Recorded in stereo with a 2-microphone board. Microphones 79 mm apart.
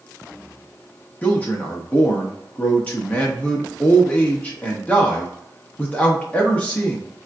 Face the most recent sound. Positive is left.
turn(degrees=20)  # may be behind; listen again after turning